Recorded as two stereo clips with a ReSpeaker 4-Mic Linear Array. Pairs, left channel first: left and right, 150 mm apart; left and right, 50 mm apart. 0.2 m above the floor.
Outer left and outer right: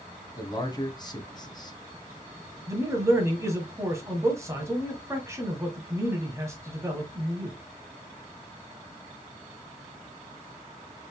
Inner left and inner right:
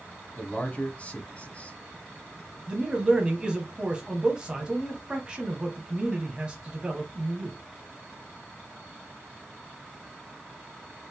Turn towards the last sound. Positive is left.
turn(degrees=-20)  # may be behind; listen again after turning